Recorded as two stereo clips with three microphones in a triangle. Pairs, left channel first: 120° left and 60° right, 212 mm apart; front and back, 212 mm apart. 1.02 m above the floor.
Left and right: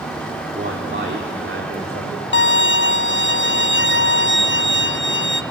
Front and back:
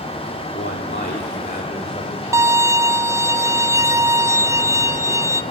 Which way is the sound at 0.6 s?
25° right.